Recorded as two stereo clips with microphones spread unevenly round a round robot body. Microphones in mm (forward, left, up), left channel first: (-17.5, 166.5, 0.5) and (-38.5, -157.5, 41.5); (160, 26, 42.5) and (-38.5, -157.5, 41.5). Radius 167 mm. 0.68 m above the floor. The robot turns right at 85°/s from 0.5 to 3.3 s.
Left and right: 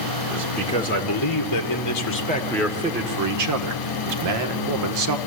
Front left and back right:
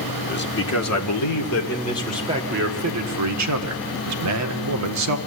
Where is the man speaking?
5° right, 1.8 m; by 5.2 s 130° right, 1.8 m.